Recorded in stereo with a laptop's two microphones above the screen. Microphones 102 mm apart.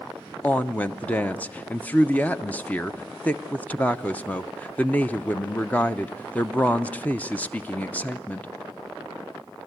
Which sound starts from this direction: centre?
A woman speaking, at 0.4 s.